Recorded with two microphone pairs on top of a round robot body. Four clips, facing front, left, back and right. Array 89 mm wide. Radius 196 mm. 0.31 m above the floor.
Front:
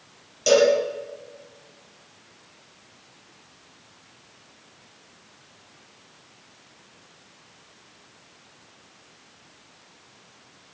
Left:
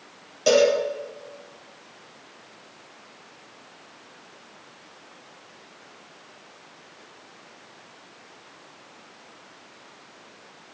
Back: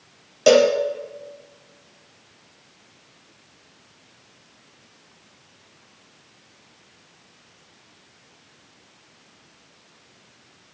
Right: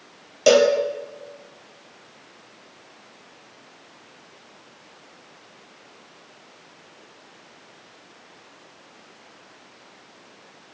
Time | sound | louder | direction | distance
0.5 | a cowbell | right 3 dB, back 3 dB | 135° right | 4 m